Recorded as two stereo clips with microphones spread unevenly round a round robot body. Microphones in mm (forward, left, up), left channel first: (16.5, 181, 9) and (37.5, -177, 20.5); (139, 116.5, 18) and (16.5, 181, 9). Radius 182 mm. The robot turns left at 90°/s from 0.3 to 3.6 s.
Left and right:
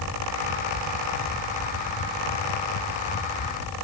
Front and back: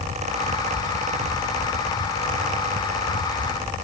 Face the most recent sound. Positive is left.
No sound to turn to.